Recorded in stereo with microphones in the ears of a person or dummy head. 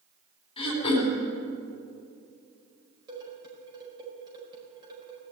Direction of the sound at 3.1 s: 25° right (ahead or behind).